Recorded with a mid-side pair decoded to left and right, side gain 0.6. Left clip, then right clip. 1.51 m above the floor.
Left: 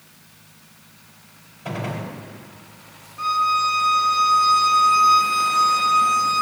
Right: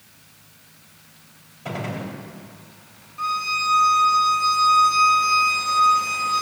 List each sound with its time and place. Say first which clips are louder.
1.6 s a gunshot: left 1 dB; 10° right, 3.5 m
3.2 s a violin: left 4 dB; 10° right, 3.5 m